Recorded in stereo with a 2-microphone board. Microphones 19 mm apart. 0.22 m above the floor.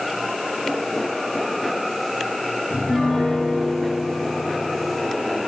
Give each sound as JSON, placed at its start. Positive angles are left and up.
{"t": 2.7, "sound": "a piano", "side_deg": 55, "distance_m": 5.5}